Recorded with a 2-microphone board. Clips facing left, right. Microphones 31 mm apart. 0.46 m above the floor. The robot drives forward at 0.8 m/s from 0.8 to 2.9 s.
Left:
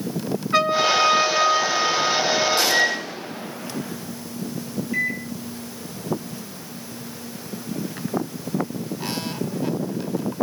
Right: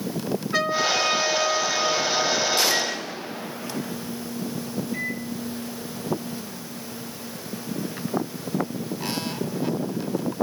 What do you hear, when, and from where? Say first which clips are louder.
0.5 s a trumpet: left 5 dB; 30° left (ahead or behind), 3 m; by 2.6 s 55° left (ahead or behind), 1.7 m
2.7 s a microwave: left 5 dB; 45° left (ahead or behind), 6 m
4.9 s a microwave: left 9 dB; 65° left (ahead or behind), 3.5 m